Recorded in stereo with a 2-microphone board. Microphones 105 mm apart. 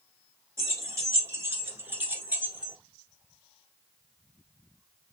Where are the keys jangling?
30° right (ahead or behind), 1.1 m; by 2.8 s 10° right (ahead or behind), 1.3 m.